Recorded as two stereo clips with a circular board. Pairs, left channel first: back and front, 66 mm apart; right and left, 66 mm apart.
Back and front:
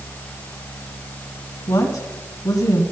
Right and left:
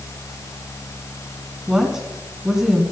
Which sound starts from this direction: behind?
A woman speaking, at 1.7 s.